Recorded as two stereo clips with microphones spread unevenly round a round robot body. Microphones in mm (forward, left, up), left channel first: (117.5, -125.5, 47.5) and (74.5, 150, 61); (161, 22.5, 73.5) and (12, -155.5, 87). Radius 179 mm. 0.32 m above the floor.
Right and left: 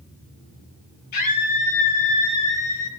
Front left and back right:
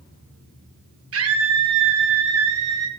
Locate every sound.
1.1 s a scream: 115° right, 6.5 m; by 2.9 s 125° right, 6 m